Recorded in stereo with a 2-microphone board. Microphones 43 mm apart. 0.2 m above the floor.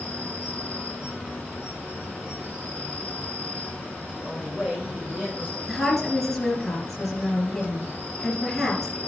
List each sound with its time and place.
0.0 s an insect: 40° right (ahead or behind), 5 m
4.2 s a man speaking: 30° right (ahead or behind), 5 m
5.7 s a woman speaking: centre (ahead or behind), 3 m